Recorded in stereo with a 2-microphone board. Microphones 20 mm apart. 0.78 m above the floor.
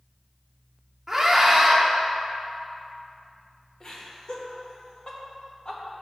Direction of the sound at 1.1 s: 15° right (ahead or behind).